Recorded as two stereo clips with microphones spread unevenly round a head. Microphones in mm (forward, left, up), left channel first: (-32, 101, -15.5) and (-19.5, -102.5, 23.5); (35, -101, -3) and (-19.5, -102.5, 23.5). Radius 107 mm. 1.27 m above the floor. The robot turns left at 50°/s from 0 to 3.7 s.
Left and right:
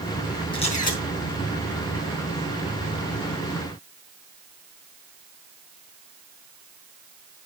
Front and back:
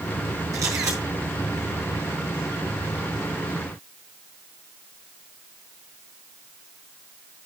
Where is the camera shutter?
165° left, 4.5 m; by 1.0 s 140° left, 4.5 m.